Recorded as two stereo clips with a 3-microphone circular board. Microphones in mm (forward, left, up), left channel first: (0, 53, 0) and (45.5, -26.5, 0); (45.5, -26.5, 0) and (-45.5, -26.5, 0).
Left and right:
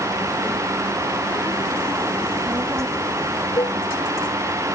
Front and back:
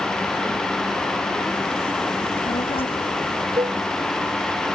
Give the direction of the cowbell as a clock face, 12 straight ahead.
7 o'clock.